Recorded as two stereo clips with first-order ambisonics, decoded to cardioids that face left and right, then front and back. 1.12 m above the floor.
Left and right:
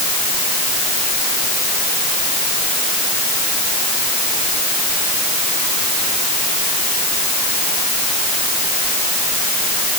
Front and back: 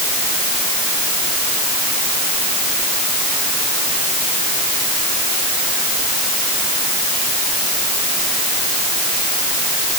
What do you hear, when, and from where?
Only background noise.